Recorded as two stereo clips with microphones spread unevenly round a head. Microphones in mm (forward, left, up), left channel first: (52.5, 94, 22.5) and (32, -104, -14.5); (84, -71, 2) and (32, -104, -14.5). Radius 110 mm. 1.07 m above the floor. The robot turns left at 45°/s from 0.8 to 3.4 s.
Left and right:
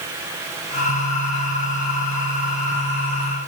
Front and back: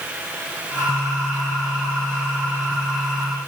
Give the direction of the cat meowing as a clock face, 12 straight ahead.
No cat meowing in this recording.